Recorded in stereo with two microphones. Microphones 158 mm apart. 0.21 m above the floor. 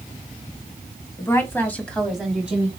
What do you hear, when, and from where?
1.2 s a woman speaking: 20° left (ahead or behind), 1.6 m; by 2.7 s 10° right (ahead or behind), 1.7 m